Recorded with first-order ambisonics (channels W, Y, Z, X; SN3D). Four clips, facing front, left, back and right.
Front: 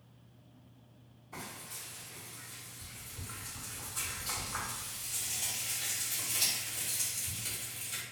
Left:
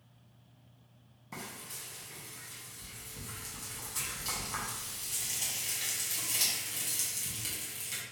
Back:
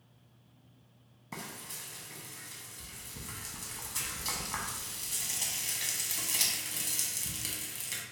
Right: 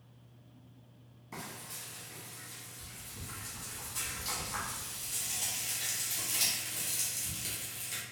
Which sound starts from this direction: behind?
Frying, at 1.3 s.